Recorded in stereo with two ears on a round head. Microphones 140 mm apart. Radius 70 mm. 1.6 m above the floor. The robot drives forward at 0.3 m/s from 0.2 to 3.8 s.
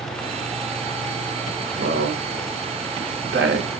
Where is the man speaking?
60° right (ahead or behind), 1.3 m; by 3.7 s 80° right, 1.1 m.